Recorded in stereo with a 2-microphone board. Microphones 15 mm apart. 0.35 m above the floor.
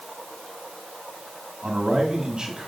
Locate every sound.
1.6 s a man speaking: 50° right (ahead or behind), 2.5 m